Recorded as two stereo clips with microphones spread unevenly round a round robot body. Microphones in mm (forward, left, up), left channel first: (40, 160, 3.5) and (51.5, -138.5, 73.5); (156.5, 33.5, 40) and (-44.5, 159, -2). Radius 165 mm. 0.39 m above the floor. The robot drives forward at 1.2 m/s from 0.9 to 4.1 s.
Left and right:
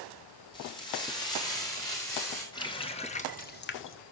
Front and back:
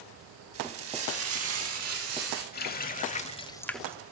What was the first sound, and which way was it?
Frying, 160° left.